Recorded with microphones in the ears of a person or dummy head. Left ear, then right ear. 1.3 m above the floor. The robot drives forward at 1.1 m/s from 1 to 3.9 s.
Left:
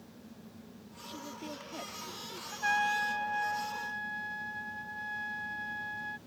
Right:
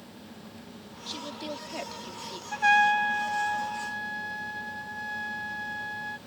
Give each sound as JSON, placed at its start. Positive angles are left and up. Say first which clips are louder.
{"t": 1.1, "sound": "a woman speaking", "louder": "right 7 dB", "side_deg": -40}
{"t": 2.5, "sound": "a trumpet", "louder": "right 9 dB", "side_deg": -40}